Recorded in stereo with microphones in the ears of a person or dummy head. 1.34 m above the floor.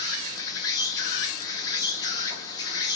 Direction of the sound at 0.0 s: 25° left (ahead or behind).